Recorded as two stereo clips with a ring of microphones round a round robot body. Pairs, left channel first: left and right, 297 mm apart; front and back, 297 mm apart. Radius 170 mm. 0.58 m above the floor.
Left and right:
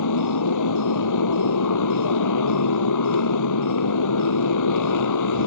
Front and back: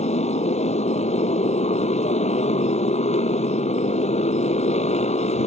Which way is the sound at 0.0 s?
70° left.